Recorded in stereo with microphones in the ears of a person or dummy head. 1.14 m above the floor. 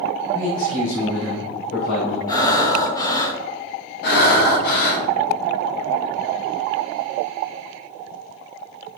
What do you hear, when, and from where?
0.3 s a man speaking: 40° left (ahead or behind), 2.5 m; by 2.2 s 60° left (ahead or behind), 3 m
2.3 s breathing: 20° left (ahead or behind), 1.0 m
4.0 s breathing: 55° left (ahead or behind), 1.3 m